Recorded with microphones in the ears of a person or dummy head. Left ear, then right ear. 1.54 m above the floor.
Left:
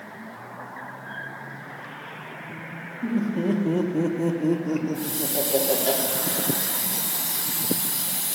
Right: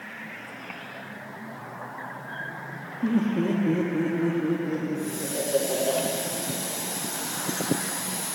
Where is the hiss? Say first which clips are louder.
Left 2 dB; 50° left (ahead or behind), 1.1 m.